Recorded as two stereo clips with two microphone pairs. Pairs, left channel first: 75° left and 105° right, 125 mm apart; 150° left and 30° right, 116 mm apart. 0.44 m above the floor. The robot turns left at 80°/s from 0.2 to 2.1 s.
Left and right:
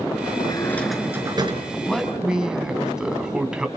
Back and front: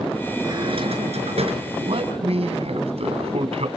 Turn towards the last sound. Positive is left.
turn(degrees=-20)